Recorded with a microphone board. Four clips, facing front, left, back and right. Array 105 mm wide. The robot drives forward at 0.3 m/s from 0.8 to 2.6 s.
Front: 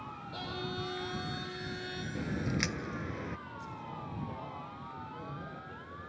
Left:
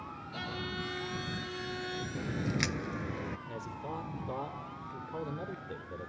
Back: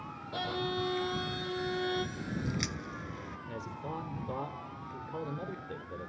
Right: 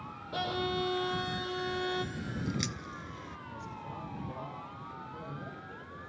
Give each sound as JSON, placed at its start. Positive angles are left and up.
{"t": 0.3, "sound": "a violin", "azimuth_deg": -115, "distance_m": 1.8}
{"t": 2.1, "sound": "a crack", "azimuth_deg": 45, "distance_m": 0.5}
{"t": 3.5, "sound": "a man speaking", "azimuth_deg": 145, "distance_m": 2.5}